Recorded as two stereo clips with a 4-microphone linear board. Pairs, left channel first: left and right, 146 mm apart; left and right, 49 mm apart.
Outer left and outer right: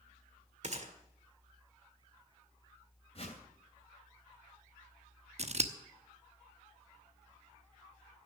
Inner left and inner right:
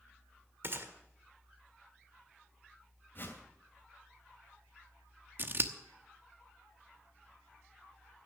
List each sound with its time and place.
0.6 s a gunshot: 50° right (ahead or behind), 1.6 m
3.1 s a whoosh: 45° left (ahead or behind), 2.5 m
5.4 s scissors: 50° right (ahead or behind), 1.0 m